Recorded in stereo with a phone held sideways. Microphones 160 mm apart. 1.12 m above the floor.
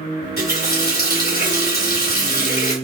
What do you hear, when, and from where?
0.2 s a running tap: 85° left, 2.5 m